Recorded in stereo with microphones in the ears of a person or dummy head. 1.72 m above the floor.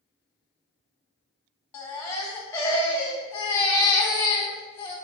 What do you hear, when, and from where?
1.7 s a baby crying: 20° left (ahead or behind), 0.8 m